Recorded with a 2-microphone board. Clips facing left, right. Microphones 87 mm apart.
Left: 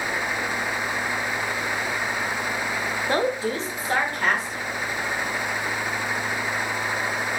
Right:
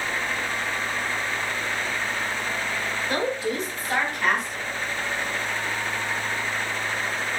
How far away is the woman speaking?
About 0.6 m.